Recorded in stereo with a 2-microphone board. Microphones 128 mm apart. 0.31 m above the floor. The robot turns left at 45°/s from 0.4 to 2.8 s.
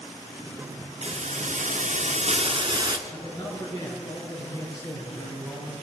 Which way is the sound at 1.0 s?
65° right.